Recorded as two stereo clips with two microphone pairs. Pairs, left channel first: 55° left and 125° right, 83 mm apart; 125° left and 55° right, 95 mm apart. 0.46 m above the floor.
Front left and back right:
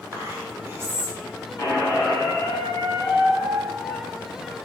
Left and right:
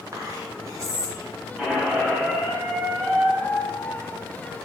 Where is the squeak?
25° left, 1.0 m.